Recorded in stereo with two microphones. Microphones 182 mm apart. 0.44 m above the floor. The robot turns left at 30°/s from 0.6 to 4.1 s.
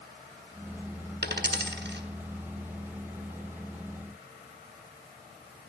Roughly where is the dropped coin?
Right.